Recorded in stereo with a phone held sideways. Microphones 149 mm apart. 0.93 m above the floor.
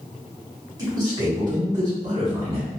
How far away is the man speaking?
About 1.7 m.